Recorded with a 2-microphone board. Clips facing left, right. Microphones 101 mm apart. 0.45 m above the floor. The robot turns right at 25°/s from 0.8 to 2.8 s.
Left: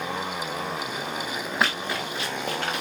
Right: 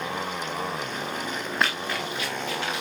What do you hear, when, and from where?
1.6 s running footsteps: 5° left (ahead or behind), 4 m; by 2.8 s 60° left (ahead or behind), 4 m